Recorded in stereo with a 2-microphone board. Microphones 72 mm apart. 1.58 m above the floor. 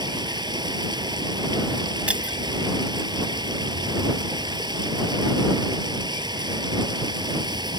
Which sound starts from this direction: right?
Running water, at 0.0 s.